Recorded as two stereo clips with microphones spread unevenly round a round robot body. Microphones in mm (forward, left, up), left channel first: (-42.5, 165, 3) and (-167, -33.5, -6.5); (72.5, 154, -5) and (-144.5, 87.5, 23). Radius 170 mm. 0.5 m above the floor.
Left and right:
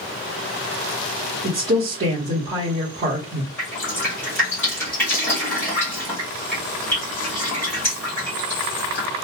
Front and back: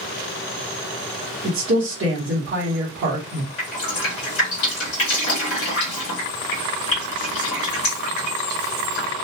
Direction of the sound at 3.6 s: 25° right.